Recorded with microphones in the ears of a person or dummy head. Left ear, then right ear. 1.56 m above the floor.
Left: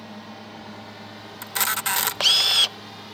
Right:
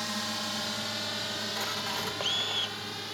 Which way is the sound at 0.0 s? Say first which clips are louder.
Right 7 dB; 65° right (ahead or behind).